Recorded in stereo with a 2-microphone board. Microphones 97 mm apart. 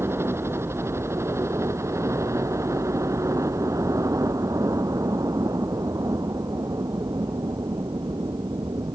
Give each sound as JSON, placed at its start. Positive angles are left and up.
{"t": 0.0, "sound": "a helicopter", "side_deg": -25}